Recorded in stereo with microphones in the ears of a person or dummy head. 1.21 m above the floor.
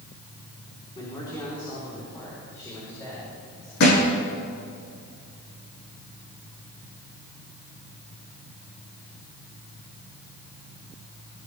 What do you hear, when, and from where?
0.9 s a man speaking: 15° left (ahead or behind), 3.5 m; by 3.7 s 10° left (ahead or behind), 5.5 m
3.8 s a thud: 55° left (ahead or behind), 5 m